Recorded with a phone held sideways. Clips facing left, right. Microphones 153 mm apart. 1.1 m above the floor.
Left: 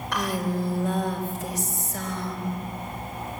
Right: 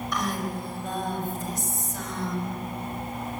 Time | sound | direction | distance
0.1 | a woman speaking | 80° left | 4 m